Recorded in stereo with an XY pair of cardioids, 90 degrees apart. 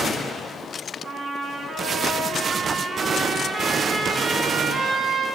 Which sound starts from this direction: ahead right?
A trumpet, at 1.0 s.